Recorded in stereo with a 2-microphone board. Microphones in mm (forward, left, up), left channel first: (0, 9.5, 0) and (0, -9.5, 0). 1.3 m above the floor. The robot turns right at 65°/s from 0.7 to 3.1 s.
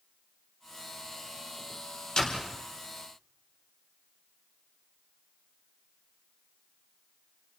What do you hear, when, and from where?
2.2 s a door slam: 60° left (ahead or behind), 4 m; by 2.5 s 80° left, 4 m